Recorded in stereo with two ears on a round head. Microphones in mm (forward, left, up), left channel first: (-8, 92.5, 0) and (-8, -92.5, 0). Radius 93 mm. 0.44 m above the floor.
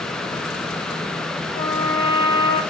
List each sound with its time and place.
1.5 s a trumpet: 40° right (ahead or behind), 2.5 m